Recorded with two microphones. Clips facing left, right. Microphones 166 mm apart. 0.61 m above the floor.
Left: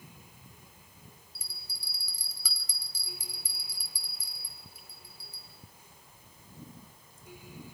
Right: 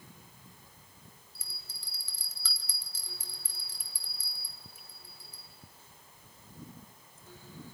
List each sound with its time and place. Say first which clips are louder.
1.4 s a bell: left 1 dB; 10° left (ahead or behind), 2.5 m